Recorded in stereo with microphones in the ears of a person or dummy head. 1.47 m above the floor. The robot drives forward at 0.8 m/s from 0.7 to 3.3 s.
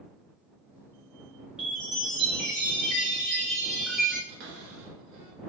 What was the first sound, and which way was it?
A chime, centre (ahead or behind).